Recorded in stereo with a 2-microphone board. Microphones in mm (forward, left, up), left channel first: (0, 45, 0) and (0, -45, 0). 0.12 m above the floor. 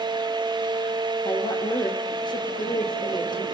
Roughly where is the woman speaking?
Left.